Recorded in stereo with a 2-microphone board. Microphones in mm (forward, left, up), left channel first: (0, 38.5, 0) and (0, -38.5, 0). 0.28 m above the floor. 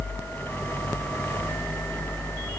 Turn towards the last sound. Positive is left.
No sound to turn to.